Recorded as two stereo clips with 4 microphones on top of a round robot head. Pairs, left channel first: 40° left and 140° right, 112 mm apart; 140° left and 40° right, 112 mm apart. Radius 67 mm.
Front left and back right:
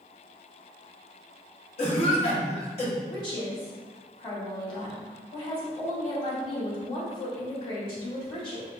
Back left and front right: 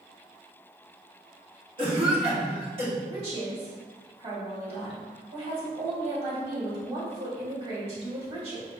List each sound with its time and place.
1.8 s a cough: 5° left, 1.2 m
3.1 s a woman speaking: 5° right, 1.8 m